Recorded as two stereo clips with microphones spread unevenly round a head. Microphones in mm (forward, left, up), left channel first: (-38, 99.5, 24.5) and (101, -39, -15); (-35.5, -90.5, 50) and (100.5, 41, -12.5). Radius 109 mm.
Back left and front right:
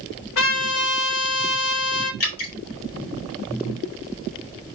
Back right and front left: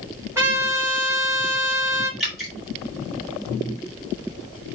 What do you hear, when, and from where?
0.3 s a trumpet: 120° left, 4.5 m
2.2 s dripping: 135° left, 3.5 m